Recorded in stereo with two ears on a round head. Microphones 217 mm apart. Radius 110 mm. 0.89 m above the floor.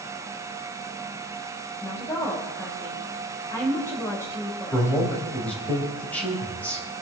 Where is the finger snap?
No finger snap in this recording.